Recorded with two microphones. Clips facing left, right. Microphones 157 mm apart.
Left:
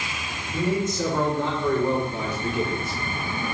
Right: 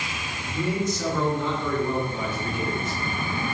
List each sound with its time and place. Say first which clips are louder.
0.5 s a man speaking: left 2 dB; 45° left (ahead or behind), 3.5 m; by 3.0 s 70° left (ahead or behind), 4 m